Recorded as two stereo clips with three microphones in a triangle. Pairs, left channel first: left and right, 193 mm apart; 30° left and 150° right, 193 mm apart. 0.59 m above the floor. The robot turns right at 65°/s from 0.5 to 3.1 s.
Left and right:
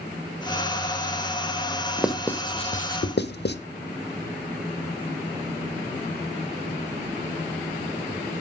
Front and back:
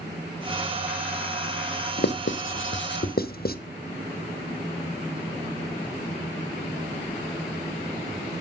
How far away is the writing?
About 0.7 m.